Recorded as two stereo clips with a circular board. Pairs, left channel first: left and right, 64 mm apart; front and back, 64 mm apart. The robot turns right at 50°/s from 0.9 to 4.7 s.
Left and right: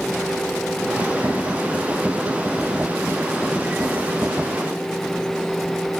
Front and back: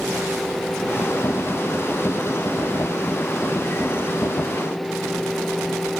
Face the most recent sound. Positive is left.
No sound to turn to.